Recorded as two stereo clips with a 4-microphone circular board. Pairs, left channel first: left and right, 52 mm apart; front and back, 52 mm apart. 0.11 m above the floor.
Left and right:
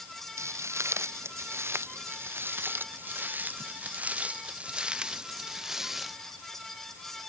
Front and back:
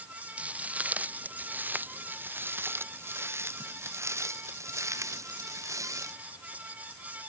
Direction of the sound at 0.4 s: 115° right.